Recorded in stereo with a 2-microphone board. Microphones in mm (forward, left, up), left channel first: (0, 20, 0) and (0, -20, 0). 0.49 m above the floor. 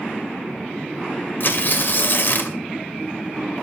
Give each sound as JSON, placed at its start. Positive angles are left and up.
{"t": 1.4, "sound": "tearing paper", "side_deg": 50, "distance_m": 2.0}